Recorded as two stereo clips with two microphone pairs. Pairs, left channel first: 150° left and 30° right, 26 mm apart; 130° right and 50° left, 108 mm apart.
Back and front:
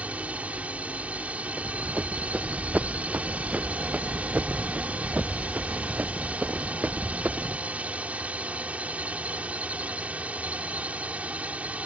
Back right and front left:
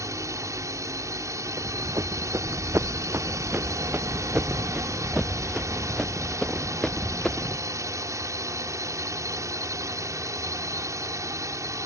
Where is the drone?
10° right.